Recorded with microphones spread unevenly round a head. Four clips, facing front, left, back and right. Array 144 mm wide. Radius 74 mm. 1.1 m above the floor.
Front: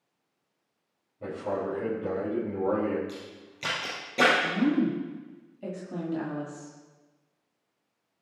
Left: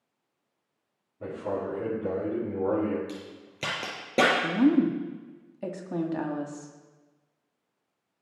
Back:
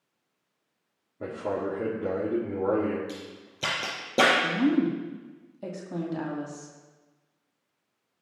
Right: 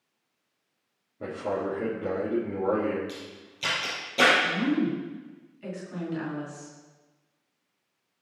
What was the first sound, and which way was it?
A man speaking, 150° right.